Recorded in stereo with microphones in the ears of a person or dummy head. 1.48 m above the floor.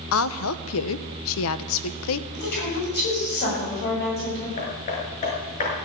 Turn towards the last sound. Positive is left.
turn(degrees=35)  # may be behind; listen again after turning